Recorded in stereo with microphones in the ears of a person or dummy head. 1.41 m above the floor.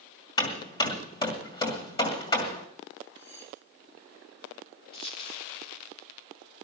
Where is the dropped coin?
30° left (ahead or behind), 1.7 m.